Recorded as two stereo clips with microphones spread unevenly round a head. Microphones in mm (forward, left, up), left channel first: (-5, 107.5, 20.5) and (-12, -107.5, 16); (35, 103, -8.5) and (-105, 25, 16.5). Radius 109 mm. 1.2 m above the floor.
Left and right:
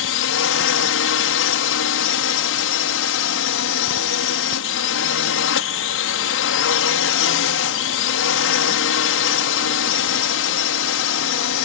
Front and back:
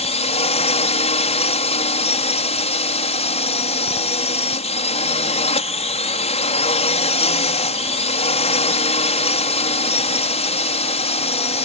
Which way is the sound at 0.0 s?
75° left.